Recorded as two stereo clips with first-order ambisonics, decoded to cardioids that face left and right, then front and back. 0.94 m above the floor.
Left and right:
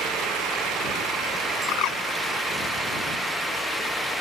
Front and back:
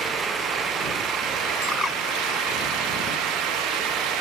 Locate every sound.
1.7 s a bird: 70° left